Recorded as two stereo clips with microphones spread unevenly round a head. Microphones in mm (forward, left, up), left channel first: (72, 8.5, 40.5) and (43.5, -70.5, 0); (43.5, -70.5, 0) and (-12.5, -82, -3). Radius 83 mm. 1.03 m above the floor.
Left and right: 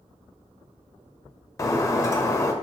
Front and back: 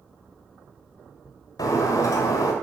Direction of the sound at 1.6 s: 25° left.